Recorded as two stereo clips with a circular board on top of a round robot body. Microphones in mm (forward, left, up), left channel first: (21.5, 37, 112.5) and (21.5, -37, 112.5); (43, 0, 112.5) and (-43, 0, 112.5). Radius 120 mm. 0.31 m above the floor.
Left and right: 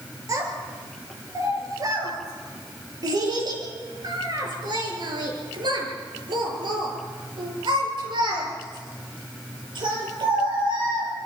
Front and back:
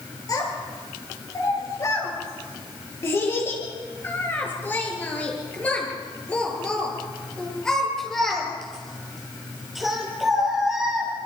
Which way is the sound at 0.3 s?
45° right.